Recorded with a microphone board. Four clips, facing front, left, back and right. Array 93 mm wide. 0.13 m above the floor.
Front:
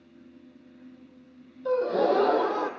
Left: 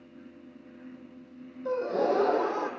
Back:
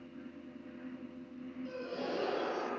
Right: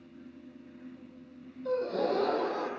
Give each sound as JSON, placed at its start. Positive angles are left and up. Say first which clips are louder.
{"t": 1.6, "sound": "a gasp", "louder": "left 3 dB, front 17 dB", "azimuth_deg": 15, "distance_m": 0.7}